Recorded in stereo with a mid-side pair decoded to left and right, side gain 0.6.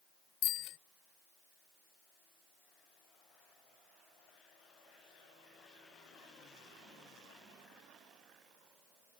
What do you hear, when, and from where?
0.4 s a bicycle bell: 70° left